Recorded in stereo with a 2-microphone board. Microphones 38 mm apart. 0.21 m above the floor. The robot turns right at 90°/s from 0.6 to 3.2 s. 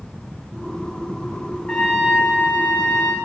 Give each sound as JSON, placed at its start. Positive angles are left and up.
{"t": 1.7, "sound": "a trumpet", "azimuth_deg": 150, "distance_m": 5.0}